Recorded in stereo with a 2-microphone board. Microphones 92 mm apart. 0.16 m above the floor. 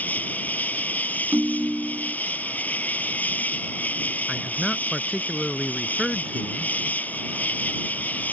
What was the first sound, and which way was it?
An insect, 20° left (ahead or behind).